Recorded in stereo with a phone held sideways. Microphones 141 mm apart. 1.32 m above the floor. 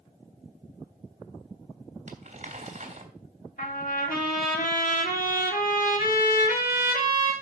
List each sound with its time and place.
2.1 s crumpling: 60° right (ahead or behind), 3 m
3.6 s a trumpet: 75° left (ahead or behind), 3 m